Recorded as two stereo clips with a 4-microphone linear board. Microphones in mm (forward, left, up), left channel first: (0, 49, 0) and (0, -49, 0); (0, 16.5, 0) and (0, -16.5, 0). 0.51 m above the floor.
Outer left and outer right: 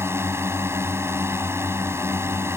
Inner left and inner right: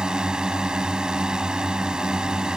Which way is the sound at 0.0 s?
25° right (ahead or behind).